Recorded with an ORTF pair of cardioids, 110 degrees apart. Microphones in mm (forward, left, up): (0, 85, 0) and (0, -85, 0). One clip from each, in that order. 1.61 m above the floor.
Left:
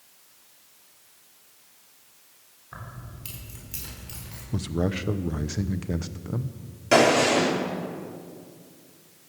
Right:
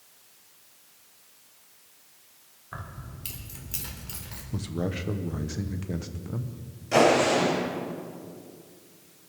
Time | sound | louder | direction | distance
2.7 | keys jangling | right 1 dB | 20° right | 3.5 m
4.5 | a man speaking | left 4 dB | 20° left | 0.9 m
6.9 | a gunshot | left 2 dB | 70° left | 5 m